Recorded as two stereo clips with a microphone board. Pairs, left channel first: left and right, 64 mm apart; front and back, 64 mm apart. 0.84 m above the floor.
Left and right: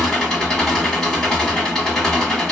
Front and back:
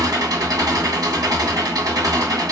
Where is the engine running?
170° left, 1.2 m.